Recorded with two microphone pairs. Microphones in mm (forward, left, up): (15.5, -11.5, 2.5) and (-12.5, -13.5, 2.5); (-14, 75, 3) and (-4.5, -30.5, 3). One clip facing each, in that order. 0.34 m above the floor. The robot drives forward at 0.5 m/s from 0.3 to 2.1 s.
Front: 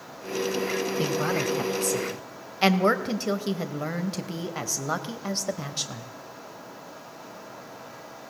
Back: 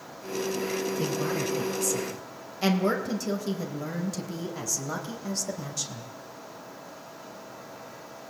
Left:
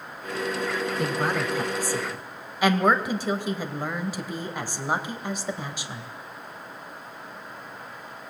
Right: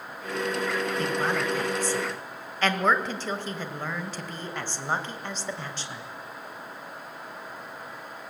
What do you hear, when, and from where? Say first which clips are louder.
1.0 s a woman speaking: front 3 dB, left 2 dB; 15° left, 2.5 m; by 6.1 s 25° left, 1.9 m